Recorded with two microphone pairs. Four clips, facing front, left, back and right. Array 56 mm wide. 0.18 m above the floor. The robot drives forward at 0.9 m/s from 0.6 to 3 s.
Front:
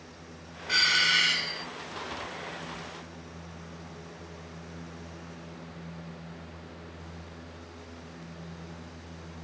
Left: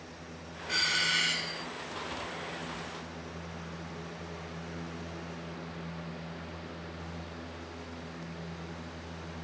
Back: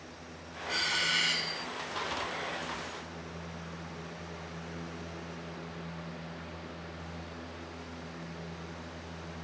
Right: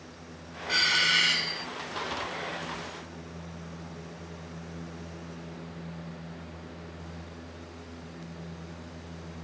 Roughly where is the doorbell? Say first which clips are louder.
Right 5 dB, front 6 dB; ahead right.